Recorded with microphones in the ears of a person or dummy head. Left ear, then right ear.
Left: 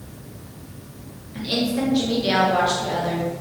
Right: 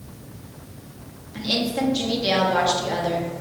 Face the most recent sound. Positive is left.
turn(degrees=-20)  # may be behind; listen again after turning